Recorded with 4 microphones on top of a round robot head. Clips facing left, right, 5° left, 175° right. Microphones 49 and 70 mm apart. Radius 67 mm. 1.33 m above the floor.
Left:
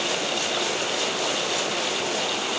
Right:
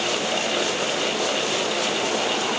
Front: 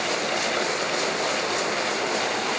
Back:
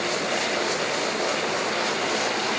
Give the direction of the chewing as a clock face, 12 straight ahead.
I don't hear chewing.